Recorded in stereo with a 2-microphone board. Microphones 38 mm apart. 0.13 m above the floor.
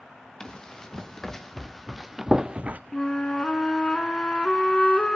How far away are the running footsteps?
About 2.5 m.